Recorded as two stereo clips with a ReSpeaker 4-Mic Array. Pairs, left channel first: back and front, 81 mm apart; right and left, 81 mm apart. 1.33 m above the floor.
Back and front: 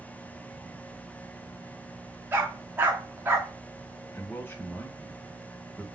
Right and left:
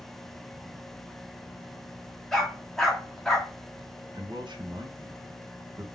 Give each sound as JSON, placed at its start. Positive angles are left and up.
{"t": 2.3, "sound": "a dog barking", "azimuth_deg": -10, "distance_m": 0.8}
{"t": 4.1, "sound": "a man speaking", "azimuth_deg": 115, "distance_m": 0.9}